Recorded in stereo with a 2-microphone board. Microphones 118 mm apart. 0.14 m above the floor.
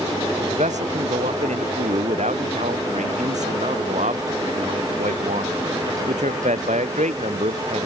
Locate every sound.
0.5 s a man speaking: 80° right